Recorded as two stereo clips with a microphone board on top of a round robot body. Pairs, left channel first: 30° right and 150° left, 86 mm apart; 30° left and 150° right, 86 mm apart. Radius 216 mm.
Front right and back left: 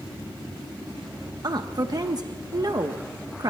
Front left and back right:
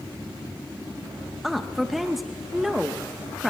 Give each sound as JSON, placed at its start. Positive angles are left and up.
{"t": 1.4, "sound": "a woman speaking", "azimuth_deg": 120, "distance_m": 1.2}